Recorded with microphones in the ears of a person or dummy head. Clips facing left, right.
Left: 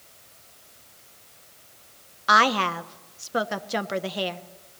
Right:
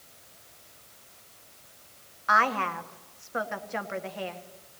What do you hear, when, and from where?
2.3 s a woman speaking: 45° left (ahead or behind), 0.9 m